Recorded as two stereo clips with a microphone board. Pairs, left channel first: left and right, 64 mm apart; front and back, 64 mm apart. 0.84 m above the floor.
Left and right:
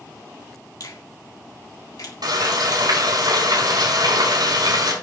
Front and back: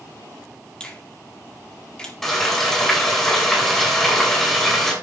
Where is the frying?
85° right, 5 m.